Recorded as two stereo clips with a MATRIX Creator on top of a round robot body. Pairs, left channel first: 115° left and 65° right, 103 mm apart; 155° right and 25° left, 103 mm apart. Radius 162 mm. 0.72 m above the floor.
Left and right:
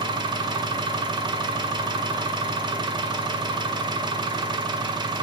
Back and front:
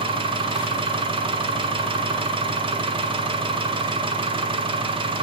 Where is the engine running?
20° right, 0.8 m.